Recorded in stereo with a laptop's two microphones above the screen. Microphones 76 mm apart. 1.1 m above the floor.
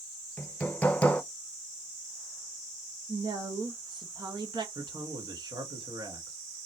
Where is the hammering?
20° left (ahead or behind), 0.7 m.